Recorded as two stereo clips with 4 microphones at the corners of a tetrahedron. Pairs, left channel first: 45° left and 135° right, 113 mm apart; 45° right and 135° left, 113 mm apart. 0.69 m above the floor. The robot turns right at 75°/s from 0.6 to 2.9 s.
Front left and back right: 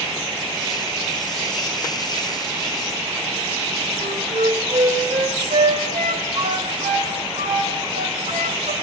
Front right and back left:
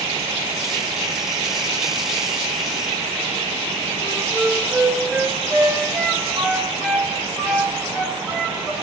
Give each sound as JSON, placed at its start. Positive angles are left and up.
{"t": 4.0, "sound": "a flute", "azimuth_deg": -145, "distance_m": 4.0}